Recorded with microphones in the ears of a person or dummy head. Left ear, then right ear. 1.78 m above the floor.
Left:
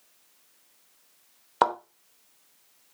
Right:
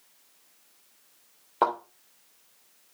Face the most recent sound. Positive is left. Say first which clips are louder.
# left 2 dB
turn(degrees=55)  # may be behind; listen again after turning